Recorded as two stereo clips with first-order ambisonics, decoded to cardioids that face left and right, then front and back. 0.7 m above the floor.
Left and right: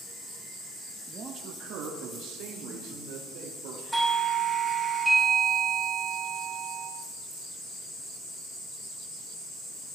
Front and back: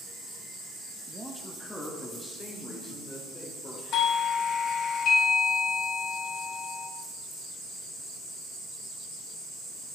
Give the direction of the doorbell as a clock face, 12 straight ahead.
12 o'clock.